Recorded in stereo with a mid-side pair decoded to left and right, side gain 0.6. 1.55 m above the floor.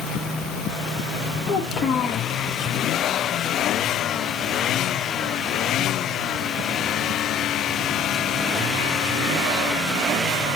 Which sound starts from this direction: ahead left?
A child speaking, at 1.5 s.